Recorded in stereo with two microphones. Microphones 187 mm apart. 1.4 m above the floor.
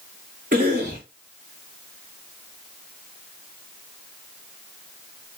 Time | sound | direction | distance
0.5 | a cough | 45° right (ahead or behind) | 2 m